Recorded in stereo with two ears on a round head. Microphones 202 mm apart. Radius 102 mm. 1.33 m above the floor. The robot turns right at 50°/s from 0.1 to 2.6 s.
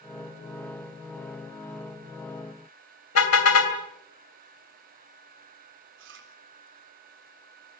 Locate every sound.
3.1 s a car horn: 70° left (ahead or behind), 2.5 m
6.0 s chewing: 55° right (ahead or behind), 3.5 m